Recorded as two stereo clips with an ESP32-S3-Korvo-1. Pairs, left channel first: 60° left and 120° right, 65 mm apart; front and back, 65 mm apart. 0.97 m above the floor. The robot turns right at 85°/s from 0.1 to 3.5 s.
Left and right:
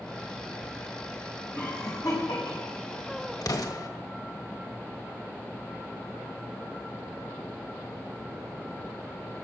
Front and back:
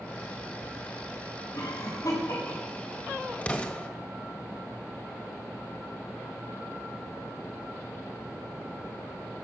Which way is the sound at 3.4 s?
65° left.